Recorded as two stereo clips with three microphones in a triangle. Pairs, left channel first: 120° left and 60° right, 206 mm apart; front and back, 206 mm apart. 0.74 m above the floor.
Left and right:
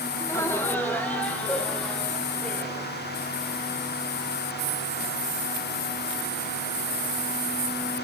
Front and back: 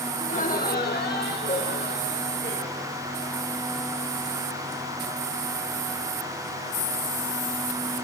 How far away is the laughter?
About 1.1 m.